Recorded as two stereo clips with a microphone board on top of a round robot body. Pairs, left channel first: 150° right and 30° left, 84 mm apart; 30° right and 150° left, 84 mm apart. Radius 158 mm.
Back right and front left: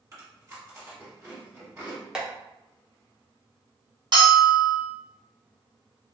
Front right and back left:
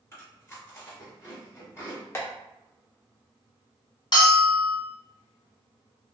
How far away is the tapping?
About 1.2 m.